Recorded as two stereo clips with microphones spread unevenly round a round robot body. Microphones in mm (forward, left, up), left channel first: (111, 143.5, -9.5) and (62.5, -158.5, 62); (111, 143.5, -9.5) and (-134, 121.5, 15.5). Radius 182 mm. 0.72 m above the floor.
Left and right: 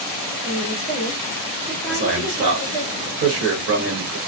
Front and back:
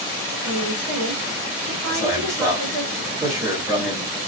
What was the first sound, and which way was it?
A woman speaking, 160° right.